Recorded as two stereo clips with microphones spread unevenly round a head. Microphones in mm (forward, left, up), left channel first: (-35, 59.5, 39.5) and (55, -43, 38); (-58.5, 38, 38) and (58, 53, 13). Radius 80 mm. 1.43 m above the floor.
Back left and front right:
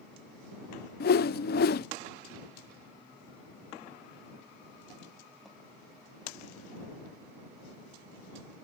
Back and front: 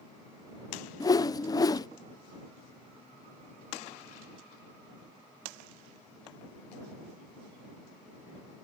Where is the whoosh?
125° left.